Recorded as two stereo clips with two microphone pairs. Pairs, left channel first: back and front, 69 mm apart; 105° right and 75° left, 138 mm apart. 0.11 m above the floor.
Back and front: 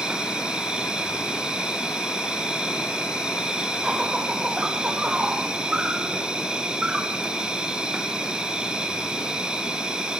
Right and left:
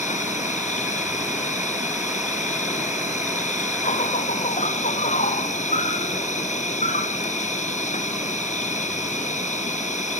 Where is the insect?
80° right, 1.6 m.